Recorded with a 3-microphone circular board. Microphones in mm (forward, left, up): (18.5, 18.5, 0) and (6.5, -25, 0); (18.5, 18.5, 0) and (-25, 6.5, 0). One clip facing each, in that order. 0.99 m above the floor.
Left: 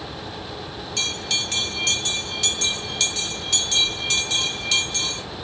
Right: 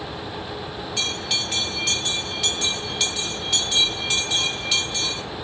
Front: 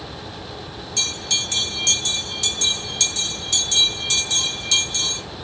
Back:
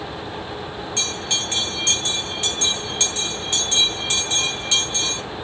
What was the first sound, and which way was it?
A bell, straight behind.